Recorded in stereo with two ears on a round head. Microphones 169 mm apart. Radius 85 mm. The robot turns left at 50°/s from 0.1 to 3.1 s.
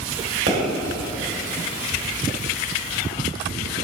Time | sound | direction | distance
0.5 | a pop | 60° right (ahead or behind) | 2 m